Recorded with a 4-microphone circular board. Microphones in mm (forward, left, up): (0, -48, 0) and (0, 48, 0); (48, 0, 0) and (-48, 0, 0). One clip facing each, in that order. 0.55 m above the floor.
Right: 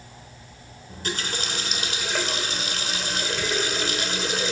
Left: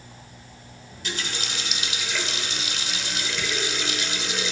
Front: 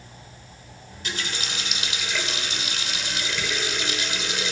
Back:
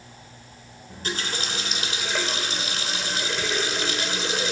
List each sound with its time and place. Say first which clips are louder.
0.9 s a running tap: right 3 dB, back 2 dB; 130° right, 1.4 m